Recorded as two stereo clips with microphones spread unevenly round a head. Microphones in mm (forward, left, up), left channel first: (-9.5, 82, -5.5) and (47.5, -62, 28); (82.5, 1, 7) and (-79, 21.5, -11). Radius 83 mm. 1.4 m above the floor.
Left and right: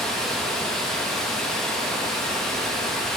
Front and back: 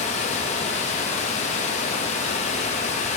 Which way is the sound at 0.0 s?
10° left.